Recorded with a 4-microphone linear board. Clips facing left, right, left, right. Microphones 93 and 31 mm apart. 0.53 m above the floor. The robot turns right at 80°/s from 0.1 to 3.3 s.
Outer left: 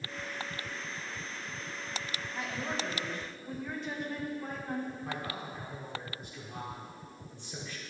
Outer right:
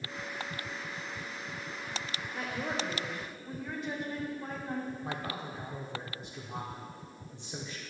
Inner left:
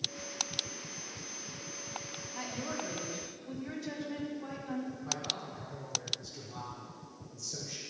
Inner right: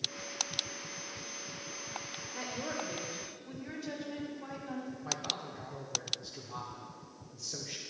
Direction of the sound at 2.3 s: 80° right.